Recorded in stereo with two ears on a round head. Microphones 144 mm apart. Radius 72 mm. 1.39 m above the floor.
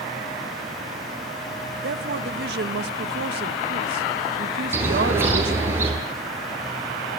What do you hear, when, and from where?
1.8 s a woman speaking: 70° right (ahead or behind), 1.8 m
4.7 s a bird: 15° right (ahead or behind), 9 m